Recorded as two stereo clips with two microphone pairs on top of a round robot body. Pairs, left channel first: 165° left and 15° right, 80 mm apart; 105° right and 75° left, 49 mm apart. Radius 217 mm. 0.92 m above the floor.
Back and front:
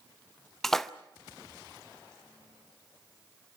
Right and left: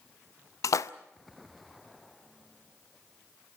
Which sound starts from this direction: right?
A splash, at 0.6 s.